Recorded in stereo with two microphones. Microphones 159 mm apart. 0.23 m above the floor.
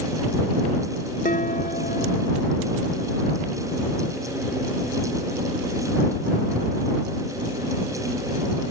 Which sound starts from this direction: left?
Dishes clattering, at 1.2 s.